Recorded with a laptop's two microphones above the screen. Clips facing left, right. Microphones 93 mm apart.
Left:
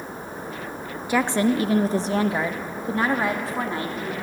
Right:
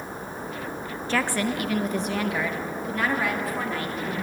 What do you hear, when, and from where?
1.1 s a woman speaking: 10° left (ahead or behind), 0.6 m; by 4.1 s 25° left (ahead or behind), 3 m